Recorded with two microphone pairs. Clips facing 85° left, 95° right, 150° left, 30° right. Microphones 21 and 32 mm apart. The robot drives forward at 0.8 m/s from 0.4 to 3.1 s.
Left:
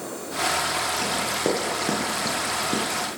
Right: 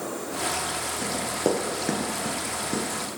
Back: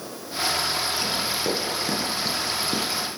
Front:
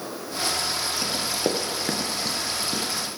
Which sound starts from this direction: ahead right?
Running footsteps, at 1.0 s.